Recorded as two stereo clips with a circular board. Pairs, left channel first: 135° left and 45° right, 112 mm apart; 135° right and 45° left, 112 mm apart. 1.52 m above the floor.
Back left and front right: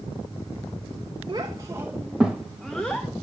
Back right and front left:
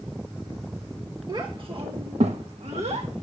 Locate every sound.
1.3 s a child speaking: straight ahead, 1.2 m; by 3.1 s 60° left, 1.5 m